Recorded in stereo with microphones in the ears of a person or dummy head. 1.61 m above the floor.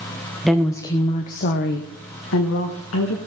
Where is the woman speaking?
Centre (ahead or behind), 1.0 m; by 3.2 s 80° left, 2 m.